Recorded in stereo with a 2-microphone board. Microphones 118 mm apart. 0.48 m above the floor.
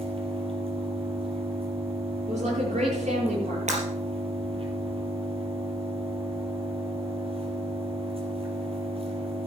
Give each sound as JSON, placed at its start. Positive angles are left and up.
{"t": 0.0, "sound": "an engine running", "side_deg": -50, "distance_m": 3.5}
{"t": 2.3, "sound": "a woman speaking", "side_deg": -75, "distance_m": 10.0}
{"t": 3.7, "sound": "breaking glass", "side_deg": -75, "distance_m": 4.0}